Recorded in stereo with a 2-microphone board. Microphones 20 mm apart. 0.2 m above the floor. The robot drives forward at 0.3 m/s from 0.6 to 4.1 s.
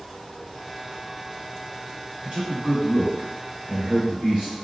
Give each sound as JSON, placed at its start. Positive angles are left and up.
{"t": 2.2, "sound": "a man speaking", "side_deg": -40, "distance_m": 1.5}